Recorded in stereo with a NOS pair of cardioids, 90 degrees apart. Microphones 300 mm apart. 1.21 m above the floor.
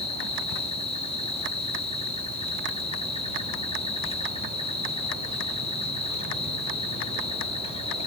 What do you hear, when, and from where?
0.0 s an insect: 20° left, 1.7 m